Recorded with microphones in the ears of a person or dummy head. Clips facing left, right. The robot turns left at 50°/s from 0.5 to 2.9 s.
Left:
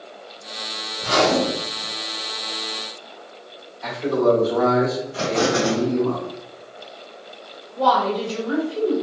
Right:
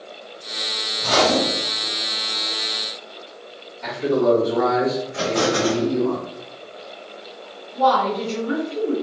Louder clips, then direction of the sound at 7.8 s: Right 1 dB; 35° right (ahead or behind).